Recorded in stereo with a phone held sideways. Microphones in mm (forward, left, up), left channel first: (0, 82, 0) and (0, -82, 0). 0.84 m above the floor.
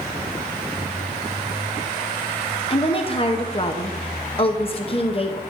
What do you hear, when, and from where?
2.7 s a woman speaking: 35° left (ahead or behind), 0.6 m